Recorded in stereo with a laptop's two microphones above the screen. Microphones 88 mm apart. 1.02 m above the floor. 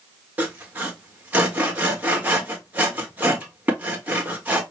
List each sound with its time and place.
0.4 s sawing: 20° right (ahead or behind), 1.4 m